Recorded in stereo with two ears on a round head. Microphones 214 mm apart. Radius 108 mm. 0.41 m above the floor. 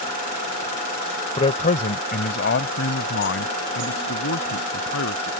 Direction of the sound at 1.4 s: 25° left (ahead or behind).